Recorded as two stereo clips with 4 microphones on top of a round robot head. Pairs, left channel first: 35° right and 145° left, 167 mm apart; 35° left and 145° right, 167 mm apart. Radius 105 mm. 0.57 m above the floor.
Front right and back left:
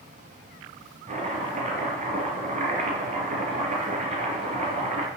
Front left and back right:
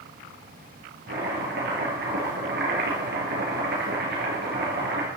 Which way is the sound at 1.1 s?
170° right.